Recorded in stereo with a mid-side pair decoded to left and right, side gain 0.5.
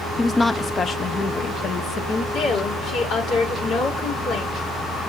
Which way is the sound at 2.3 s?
70° left.